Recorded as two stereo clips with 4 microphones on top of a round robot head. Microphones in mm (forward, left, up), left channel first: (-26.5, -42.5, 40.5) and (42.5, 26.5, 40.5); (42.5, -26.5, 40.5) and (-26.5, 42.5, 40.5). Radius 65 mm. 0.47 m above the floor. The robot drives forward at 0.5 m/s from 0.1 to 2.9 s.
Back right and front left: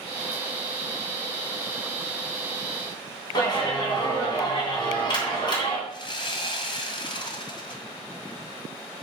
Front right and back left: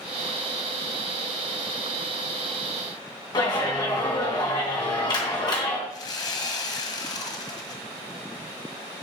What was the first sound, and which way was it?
A clap, 95° right.